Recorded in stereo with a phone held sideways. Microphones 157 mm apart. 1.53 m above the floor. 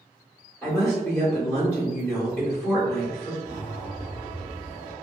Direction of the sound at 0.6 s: 5° left (ahead or behind).